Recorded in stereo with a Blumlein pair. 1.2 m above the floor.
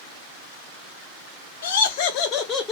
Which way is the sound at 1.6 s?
65° left.